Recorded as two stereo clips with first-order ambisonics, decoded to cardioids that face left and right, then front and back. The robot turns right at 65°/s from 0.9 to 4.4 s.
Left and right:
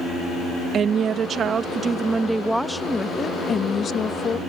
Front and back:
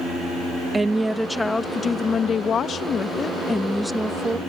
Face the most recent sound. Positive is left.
turn(degrees=120)